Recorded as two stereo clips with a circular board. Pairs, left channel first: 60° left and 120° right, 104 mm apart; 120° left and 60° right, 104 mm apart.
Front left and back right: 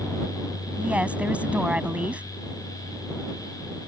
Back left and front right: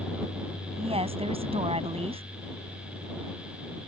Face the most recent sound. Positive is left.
turn(degrees=-40)